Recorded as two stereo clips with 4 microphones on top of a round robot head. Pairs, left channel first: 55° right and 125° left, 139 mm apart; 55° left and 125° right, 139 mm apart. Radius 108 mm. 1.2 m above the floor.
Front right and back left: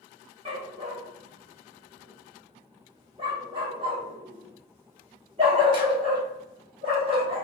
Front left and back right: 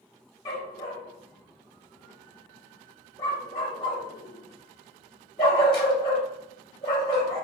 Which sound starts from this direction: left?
A dog barking, at 0.5 s.